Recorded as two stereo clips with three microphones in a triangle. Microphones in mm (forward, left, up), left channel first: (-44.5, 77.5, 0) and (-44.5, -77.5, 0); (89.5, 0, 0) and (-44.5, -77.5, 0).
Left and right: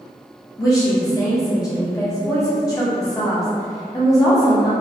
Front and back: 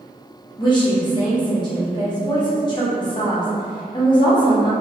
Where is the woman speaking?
45° left, 0.6 m.